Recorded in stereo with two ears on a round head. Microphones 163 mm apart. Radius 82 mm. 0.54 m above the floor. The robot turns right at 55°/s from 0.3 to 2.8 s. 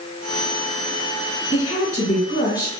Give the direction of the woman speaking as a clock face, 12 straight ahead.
9 o'clock.